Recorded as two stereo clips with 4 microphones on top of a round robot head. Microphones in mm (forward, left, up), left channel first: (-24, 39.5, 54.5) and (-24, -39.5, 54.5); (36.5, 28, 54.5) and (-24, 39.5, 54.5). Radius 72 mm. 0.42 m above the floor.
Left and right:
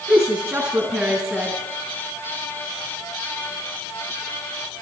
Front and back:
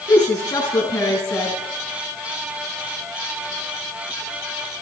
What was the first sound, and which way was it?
A woman speaking, 25° right.